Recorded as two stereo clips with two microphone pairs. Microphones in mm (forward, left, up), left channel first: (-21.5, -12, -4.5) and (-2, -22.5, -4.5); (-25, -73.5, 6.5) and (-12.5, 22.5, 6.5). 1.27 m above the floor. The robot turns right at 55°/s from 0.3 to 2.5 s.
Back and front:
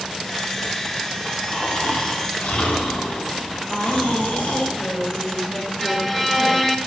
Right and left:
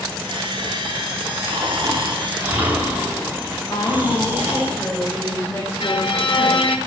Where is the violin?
125° right, 1.5 m.